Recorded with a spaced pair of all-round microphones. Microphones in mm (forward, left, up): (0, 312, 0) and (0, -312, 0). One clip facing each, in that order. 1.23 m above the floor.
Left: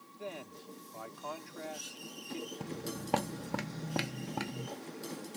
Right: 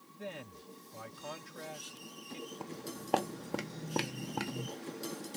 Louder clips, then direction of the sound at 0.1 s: Left 1 dB; 40° right (ahead or behind).